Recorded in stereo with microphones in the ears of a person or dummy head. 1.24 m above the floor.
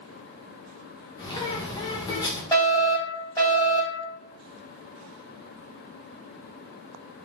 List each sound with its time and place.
1.2 s a bird: 25° left (ahead or behind), 0.6 m
2.5 s a fire alarm: 15° left (ahead or behind), 1.7 m